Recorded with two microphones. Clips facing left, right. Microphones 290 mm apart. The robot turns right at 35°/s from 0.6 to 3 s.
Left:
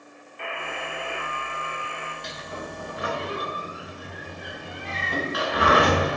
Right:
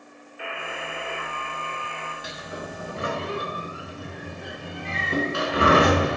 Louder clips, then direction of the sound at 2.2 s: Right 1 dB; 5° right (ahead or behind).